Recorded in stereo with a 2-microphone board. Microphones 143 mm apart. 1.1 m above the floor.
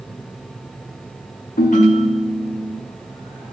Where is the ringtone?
60° left (ahead or behind), 0.7 m.